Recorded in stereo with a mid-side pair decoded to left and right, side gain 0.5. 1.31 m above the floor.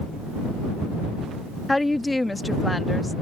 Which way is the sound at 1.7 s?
10° left.